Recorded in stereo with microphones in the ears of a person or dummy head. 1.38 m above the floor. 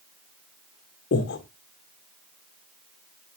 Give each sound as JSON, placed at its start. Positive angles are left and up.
{"t": 1.1, "sound": "breathing", "side_deg": 60, "distance_m": 2.0}